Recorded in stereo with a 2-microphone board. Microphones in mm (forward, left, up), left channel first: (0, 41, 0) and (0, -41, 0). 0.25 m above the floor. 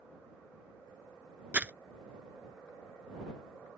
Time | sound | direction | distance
1.5 | crumpling | 20° right (ahead or behind) | ?